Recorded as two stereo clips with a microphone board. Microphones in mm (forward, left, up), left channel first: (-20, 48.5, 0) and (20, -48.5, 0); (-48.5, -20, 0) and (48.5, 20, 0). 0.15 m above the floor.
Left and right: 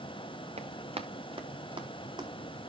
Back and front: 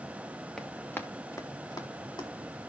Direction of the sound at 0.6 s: 70° right.